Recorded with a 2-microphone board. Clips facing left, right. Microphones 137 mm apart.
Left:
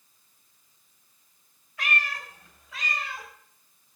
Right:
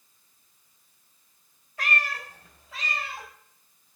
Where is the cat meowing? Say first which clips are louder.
Right 1 dB; 40° right (ahead or behind), 1.8 m; by 3.3 s 25° right (ahead or behind), 3 m.